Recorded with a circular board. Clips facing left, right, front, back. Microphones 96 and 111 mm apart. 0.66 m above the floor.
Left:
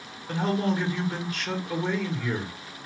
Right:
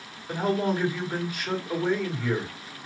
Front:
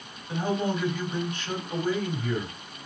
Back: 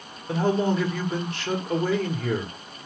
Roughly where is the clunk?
No clunk in this recording.